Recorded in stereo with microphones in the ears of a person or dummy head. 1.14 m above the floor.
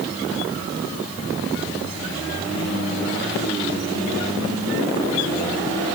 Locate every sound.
Only background noise.